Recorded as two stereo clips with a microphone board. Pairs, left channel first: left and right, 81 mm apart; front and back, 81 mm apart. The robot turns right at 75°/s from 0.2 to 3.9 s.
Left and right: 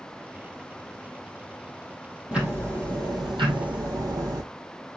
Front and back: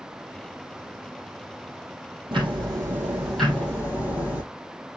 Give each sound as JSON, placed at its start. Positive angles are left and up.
{"t": 2.3, "sound": "ticking", "azimuth_deg": -170, "distance_m": 3.0}